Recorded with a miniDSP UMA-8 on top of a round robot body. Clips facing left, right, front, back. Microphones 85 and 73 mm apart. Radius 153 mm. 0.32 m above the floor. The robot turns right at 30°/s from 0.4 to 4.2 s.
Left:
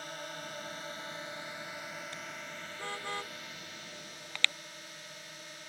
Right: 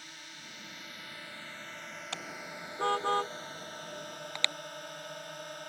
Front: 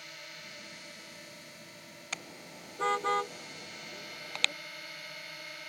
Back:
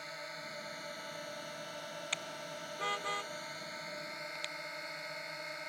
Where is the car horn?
80° right; by 4.5 s 20° right.